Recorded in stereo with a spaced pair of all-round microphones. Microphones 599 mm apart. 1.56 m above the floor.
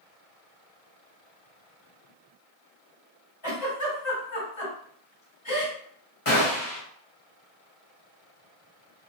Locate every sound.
3.4 s a giggle: 35° left (ahead or behind), 1.7 m
6.2 s a gunshot: 35° left (ahead or behind), 1.1 m